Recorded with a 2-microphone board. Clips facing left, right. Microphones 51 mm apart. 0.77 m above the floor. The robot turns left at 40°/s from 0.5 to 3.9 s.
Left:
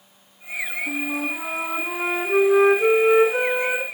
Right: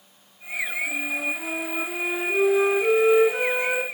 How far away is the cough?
No cough in this recording.